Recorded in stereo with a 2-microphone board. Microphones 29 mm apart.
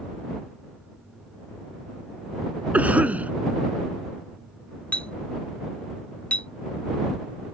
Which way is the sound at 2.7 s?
55° right (ahead or behind).